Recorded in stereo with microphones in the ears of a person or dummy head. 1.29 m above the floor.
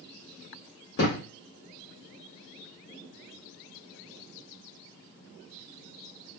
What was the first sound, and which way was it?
A thud, 65° left (ahead or behind).